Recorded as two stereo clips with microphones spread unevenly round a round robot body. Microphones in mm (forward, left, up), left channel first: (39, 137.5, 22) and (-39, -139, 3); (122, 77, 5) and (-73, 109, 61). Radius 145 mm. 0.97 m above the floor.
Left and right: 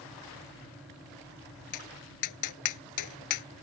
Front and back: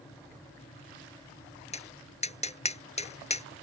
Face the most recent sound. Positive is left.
turn(degrees=50)